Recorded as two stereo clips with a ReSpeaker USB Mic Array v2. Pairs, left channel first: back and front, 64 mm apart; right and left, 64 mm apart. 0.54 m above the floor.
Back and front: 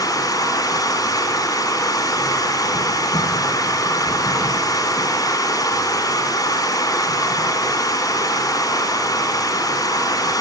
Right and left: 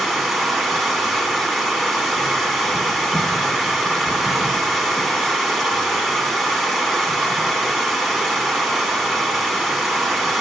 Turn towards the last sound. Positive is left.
turn(degrees=180)